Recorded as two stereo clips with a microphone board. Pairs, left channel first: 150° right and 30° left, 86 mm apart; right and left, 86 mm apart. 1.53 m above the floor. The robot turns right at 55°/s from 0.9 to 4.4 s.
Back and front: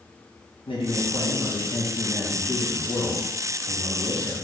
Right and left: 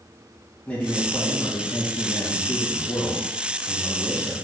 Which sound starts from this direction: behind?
A man speaking, at 0.7 s.